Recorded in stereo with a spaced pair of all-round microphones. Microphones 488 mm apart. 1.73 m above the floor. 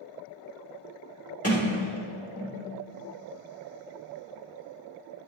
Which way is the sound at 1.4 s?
25° left (ahead or behind).